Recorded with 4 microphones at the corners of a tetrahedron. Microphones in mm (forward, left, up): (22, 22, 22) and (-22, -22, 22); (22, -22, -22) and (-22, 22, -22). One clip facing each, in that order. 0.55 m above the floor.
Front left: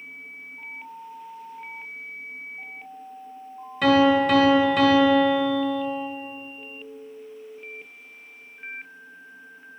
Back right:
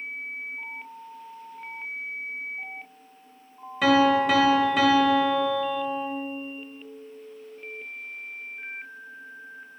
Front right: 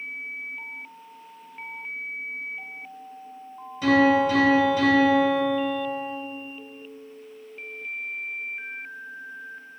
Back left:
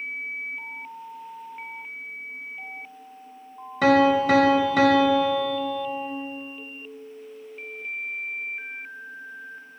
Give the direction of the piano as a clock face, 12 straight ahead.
7 o'clock.